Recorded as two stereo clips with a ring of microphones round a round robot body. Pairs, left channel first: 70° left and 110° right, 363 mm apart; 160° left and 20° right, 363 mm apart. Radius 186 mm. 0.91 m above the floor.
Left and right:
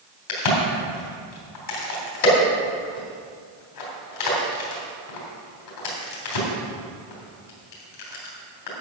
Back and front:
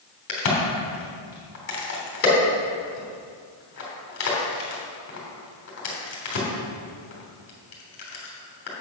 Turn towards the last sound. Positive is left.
turn(degrees=100)